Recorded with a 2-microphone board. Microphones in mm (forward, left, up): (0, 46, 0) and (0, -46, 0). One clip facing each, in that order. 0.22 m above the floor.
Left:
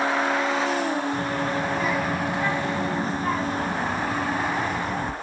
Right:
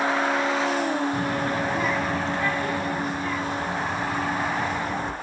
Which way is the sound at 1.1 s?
15° right (ahead or behind).